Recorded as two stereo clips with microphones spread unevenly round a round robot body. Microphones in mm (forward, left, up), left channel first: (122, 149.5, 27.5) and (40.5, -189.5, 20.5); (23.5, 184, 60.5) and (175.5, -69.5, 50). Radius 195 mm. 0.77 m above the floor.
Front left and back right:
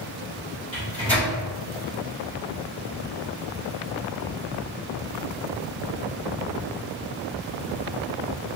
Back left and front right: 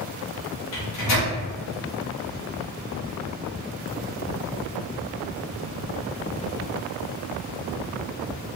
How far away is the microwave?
About 1.1 m.